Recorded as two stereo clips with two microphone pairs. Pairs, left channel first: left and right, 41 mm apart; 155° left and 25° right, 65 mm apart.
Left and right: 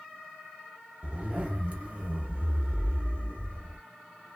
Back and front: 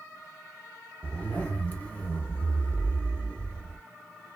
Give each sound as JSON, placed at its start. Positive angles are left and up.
{"t": 1.0, "sound": "a zipper", "azimuth_deg": -140, "distance_m": 1.1}